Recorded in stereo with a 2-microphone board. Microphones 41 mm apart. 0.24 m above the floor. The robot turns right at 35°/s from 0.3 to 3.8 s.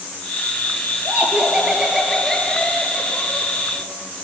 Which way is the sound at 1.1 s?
40° right.